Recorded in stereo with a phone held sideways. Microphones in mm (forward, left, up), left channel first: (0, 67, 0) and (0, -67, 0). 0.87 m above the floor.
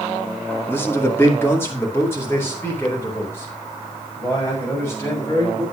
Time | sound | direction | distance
0.7 | a man speaking | 15° left (ahead or behind) | 1.7 m